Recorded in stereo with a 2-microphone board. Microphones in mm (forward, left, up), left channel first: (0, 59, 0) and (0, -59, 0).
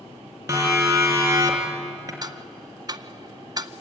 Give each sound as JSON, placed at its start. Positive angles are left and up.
{"t": 0.5, "sound": "a siren", "side_deg": -20, "distance_m": 4.5}
{"t": 2.2, "sound": "ticking", "side_deg": -35, "distance_m": 0.5}